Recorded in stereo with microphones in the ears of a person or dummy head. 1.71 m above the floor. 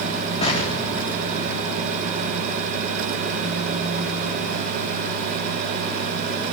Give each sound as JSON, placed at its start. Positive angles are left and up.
{"t": 0.4, "sound": "an explosion", "side_deg": 40, "distance_m": 4.5}